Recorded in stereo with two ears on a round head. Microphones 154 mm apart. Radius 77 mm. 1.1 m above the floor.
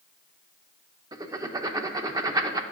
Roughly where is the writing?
Right.